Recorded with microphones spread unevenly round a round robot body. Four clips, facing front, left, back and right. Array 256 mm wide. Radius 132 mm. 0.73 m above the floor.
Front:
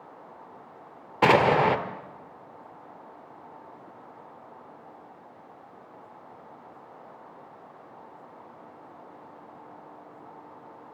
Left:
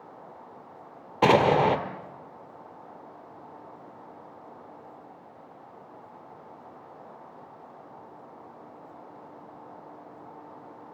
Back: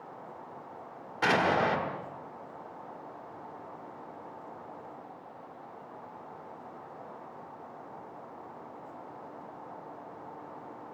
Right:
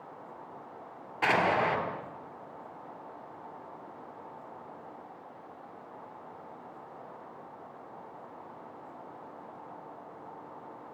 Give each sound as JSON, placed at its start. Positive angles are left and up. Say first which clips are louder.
{"t": 1.2, "sound": "an explosion", "louder": "left 7 dB, front 7 dB", "azimuth_deg": 50, "distance_m": 1.4}